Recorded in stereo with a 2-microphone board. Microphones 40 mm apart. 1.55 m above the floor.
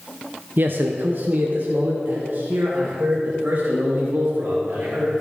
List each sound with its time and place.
0.6 s a man speaking: 55° right (ahead or behind), 0.7 m; by 5.2 s 50° right (ahead or behind), 3 m